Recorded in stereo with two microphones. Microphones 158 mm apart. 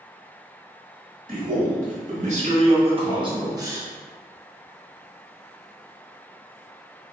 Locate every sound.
1.3 s a man speaking: 55° right (ahead or behind), 1.9 m; by 3.9 s 15° right (ahead or behind), 1.0 m